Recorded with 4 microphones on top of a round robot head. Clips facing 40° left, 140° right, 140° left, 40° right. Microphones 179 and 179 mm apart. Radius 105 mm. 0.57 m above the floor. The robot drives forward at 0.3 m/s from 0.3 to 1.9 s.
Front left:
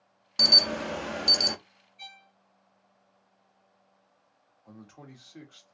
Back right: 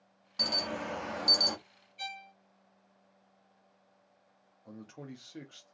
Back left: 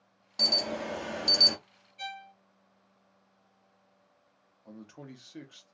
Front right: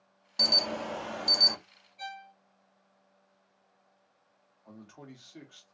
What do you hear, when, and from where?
0.4 s an alarm: 50° left, 0.6 m; by 1.6 s 100° left, 0.5 m
2.0 s a violin: 160° right, 0.6 m
4.7 s a man speaking: 175° right, 0.8 m